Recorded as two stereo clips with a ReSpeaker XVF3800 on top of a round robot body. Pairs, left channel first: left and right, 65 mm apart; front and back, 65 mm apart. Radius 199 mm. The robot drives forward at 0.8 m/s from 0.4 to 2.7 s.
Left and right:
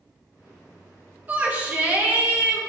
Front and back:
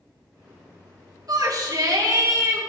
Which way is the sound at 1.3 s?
155° right.